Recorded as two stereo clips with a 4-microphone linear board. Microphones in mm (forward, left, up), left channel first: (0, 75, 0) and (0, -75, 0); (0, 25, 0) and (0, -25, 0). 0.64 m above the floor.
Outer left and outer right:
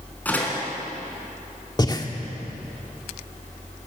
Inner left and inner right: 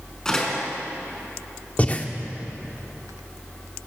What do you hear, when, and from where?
0.2 s a door slam: 10° left (ahead or behind), 5 m
1.8 s breathing: 30° left (ahead or behind), 1.6 m